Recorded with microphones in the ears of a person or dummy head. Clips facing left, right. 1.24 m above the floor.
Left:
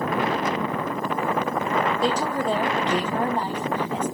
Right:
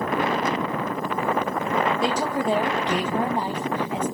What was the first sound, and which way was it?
A woman speaking, 5° right (ahead or behind).